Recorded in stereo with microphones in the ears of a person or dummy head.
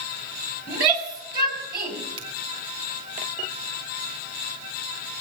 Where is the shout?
25° right (ahead or behind), 6.5 m.